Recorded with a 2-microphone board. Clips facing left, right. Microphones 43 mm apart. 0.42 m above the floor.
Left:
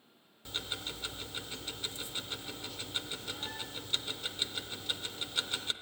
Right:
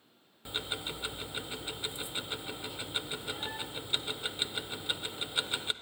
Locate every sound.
0.5 s ticking: 20° right (ahead or behind), 0.6 m